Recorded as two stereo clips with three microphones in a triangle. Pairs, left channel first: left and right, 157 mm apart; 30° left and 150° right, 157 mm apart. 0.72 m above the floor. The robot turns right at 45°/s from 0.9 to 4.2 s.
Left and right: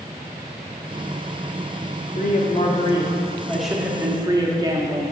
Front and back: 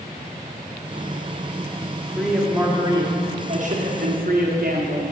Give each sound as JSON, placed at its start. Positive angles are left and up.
{"t": 2.1, "sound": "a man speaking", "azimuth_deg": 115, "distance_m": 1.0}